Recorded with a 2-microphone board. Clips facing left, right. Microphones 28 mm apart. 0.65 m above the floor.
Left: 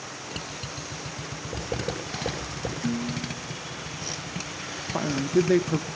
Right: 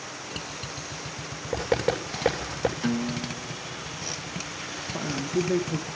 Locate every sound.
1.5 s writing: 85° right, 8.5 m
2.8 s a guitar: 35° right (ahead or behind), 1.2 m
4.9 s a man speaking: 40° left (ahead or behind), 0.9 m